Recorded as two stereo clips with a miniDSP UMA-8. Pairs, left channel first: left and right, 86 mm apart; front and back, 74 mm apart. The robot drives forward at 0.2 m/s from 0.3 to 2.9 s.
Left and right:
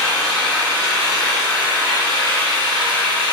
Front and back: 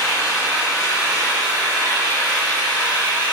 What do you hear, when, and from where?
0.0 s an engine running: 50° right, 1.6 m; by 3.3 s 70° right, 1.3 m